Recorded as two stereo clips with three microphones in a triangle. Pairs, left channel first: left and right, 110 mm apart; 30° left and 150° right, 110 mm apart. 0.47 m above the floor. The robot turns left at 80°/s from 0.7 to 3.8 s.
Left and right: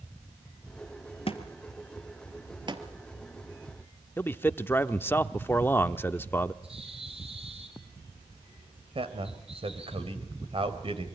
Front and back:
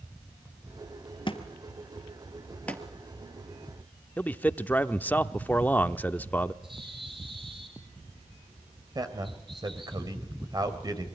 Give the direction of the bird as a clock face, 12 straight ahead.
4 o'clock.